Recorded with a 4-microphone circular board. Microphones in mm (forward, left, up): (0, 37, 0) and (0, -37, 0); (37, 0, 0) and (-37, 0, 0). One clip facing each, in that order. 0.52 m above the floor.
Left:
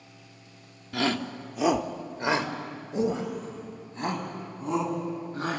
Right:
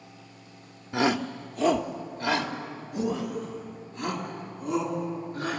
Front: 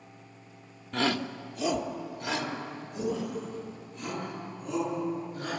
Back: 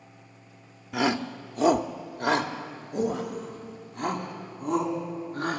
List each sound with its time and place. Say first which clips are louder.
0.9 s a shout: right 3 dB, back 3 dB; 115° right, 0.7 m; by 5.6 s 145° left, 4.5 m